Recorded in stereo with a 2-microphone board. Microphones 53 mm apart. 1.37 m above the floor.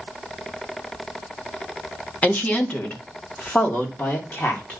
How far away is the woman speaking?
About 1.6 m.